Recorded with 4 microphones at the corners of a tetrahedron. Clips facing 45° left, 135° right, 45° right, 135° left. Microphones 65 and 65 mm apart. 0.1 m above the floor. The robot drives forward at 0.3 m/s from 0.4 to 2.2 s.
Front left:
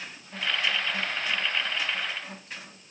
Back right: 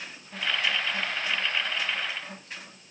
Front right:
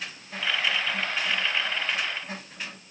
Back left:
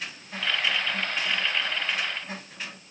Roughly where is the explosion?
No explosion in this recording.